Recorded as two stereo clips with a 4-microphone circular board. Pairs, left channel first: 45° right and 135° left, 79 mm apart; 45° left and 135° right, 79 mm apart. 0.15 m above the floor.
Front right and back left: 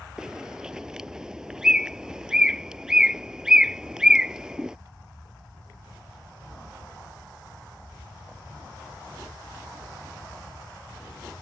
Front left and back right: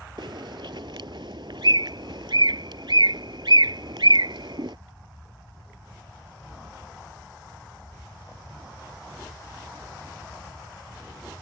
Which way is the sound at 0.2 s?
145° right.